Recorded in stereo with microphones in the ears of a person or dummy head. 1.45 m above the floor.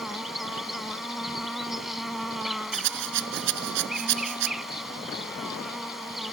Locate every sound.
0.0 s an insect: 10° left (ahead or behind)
2.7 s a rattle: 75° right (ahead or behind)